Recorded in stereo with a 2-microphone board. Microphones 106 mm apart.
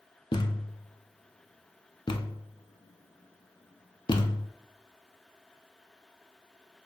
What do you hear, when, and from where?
0.3 s a thud: 50° left (ahead or behind), 0.5 m